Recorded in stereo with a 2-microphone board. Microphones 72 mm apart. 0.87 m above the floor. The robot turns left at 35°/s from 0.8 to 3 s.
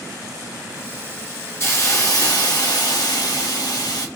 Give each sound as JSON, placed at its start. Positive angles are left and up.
{"t": 1.6, "sound": "a hiss", "azimuth_deg": 140, "distance_m": 1.6}